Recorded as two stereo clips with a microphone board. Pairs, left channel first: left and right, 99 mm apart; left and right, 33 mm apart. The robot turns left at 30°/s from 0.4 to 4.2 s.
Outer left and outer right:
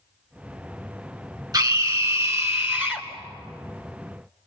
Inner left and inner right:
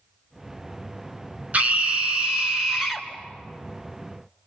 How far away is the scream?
About 2 m.